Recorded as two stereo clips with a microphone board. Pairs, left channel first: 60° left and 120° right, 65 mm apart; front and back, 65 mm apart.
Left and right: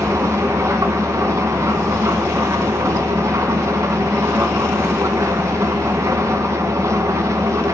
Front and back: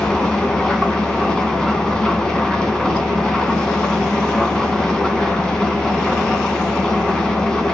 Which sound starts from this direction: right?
An engine running, at 0.0 s.